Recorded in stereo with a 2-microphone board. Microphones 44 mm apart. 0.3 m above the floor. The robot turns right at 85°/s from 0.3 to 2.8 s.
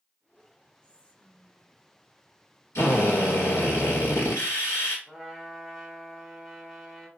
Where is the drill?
80° left, 1.8 m.